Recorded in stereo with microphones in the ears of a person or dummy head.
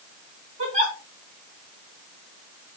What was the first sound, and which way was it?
A giggle, 35° right (ahead or behind).